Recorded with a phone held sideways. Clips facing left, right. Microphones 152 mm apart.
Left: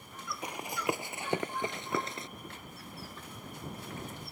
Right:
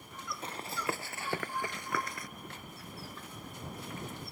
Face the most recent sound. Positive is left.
turn(degrees=25)  # may be behind; listen again after turning